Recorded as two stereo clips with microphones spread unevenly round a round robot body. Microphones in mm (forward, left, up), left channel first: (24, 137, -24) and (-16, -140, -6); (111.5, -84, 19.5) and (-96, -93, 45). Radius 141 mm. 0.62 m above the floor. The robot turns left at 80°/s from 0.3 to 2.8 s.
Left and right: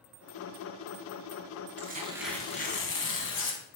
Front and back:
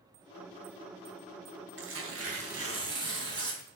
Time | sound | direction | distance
1.8 | tearing paper | 150° right | 2.5 m